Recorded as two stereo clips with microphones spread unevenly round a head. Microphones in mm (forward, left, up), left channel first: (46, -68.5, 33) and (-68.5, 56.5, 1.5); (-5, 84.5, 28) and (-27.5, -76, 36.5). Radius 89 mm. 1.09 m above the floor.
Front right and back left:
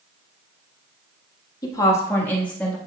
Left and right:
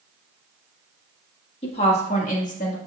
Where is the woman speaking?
25° left, 1.4 m; by 2.8 s 40° left, 1.9 m.